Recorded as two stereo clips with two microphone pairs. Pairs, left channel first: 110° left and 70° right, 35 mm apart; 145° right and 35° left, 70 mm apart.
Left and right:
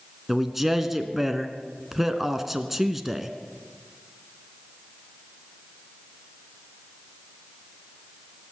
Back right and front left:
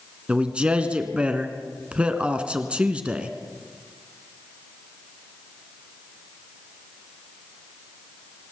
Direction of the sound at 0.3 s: 5° right.